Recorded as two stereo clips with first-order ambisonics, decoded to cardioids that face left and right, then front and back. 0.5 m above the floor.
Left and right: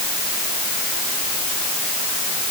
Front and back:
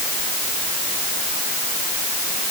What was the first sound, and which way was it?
Only background noise.